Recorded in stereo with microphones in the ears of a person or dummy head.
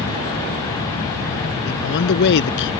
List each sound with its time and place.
1.7 s a man speaking: 65° left (ahead or behind)